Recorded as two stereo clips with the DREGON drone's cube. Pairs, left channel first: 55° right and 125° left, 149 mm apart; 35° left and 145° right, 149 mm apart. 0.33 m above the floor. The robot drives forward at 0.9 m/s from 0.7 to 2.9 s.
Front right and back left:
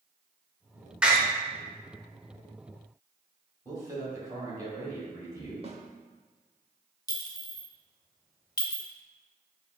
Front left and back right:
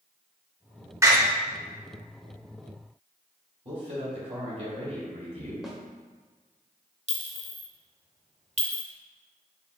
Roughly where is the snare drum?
Behind left.